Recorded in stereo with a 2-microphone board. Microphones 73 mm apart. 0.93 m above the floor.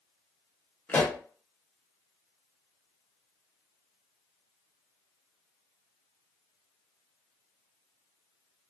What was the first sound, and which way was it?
A pop, 20° left (ahead or behind).